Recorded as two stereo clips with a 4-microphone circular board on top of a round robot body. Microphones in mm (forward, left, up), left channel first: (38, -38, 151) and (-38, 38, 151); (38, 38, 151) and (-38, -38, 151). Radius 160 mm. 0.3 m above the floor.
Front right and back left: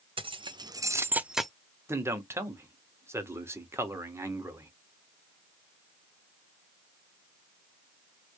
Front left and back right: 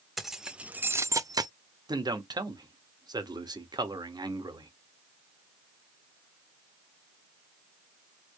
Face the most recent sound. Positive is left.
turn(degrees=-170)